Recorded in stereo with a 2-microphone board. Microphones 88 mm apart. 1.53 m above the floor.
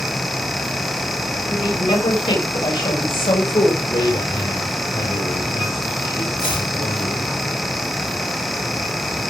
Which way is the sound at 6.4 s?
80° left.